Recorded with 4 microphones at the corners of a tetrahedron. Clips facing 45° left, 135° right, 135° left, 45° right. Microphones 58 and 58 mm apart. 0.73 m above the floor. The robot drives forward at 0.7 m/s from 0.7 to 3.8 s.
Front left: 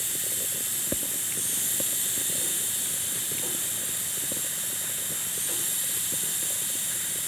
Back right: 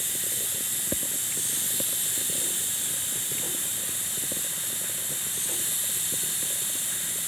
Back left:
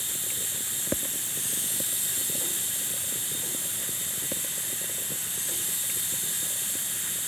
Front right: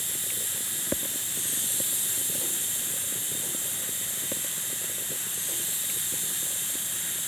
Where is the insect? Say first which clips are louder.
Even, even; 55° left, 1.0 m; by 7.3 s 160° left, 1.9 m.